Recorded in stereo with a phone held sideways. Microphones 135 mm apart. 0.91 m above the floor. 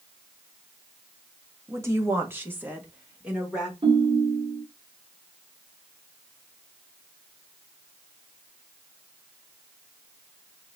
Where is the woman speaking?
20° right (ahead or behind), 0.7 m; by 3.7 s 5° right (ahead or behind), 1.4 m.